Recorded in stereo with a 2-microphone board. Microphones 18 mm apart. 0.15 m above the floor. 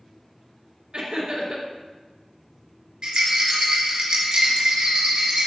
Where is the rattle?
55° right (ahead or behind), 3 m.